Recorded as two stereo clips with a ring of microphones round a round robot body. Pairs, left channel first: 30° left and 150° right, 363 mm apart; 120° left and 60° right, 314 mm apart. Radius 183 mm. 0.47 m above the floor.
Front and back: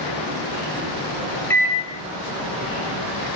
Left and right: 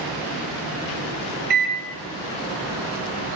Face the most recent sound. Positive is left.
turn(degrees=-45)